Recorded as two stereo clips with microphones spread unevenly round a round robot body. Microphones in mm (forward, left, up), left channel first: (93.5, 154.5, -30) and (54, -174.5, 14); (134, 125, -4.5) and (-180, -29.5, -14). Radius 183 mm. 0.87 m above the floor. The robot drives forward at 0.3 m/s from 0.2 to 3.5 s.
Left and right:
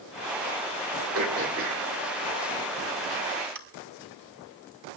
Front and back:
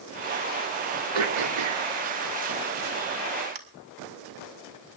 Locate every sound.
1.1 s throat clearing: 155° right, 1.9 m; by 3.6 s 160° right, 2.5 m